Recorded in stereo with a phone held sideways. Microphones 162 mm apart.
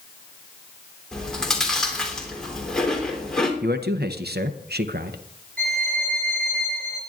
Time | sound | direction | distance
1.1 | chewing | 5° left (ahead or behind) | 3 m
3.6 | a man speaking | 85° right | 0.8 m
5.6 | a violin | 65° right (ahead or behind) | 7 m